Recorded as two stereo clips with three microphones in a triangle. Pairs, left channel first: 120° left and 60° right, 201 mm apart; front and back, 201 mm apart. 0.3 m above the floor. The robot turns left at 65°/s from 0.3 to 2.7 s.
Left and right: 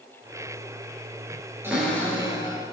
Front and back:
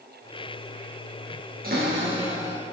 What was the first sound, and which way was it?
A cupboard door, 140° right.